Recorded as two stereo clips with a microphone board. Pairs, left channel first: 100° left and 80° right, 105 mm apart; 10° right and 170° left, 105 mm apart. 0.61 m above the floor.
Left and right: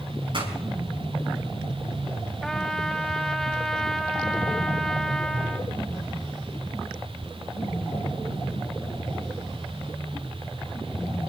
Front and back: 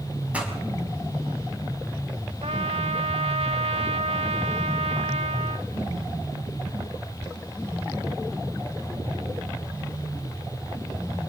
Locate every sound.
0.3 s a pop: 115° right, 5 m
2.4 s a trumpet: 175° right, 1.3 m